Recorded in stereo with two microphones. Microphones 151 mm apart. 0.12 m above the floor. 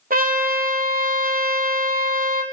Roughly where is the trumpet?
Right.